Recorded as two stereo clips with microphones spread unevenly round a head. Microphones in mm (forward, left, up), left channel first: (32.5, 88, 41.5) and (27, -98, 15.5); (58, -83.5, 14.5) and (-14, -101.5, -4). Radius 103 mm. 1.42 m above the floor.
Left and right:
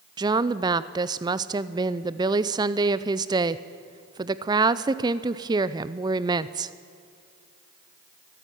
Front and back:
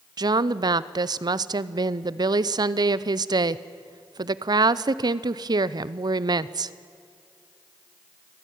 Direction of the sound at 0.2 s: 160° right.